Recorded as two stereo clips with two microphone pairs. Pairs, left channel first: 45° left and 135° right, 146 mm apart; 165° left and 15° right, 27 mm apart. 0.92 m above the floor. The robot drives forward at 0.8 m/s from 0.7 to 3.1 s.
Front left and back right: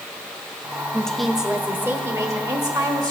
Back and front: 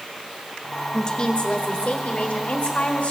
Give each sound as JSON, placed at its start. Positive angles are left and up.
{"t": 0.9, "sound": "a woman speaking", "azimuth_deg": 120, "distance_m": 1.0}